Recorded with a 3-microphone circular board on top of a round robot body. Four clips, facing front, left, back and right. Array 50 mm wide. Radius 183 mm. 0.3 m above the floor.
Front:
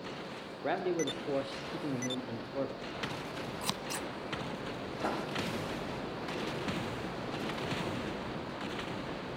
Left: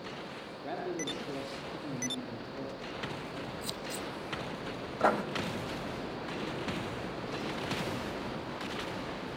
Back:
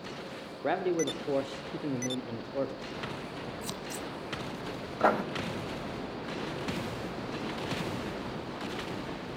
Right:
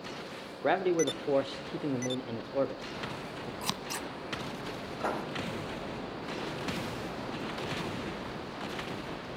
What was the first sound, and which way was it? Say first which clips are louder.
A man speaking: right 10 dB, back 3 dB; 100° right.